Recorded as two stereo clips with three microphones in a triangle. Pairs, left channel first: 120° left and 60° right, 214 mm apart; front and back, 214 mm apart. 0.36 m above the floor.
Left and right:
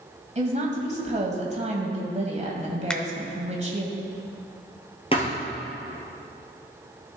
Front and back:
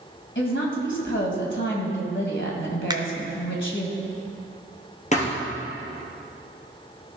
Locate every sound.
0.3 s a woman speaking: 5° right, 1.8 m
2.9 s a finger snap: 160° right, 0.6 m
5.1 s a thud: 55° left, 2 m